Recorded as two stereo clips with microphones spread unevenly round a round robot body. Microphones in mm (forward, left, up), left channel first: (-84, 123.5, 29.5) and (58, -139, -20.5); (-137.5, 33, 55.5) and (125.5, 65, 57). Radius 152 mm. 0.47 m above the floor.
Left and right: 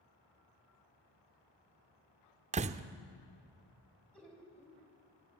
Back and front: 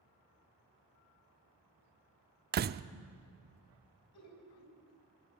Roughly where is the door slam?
Ahead right.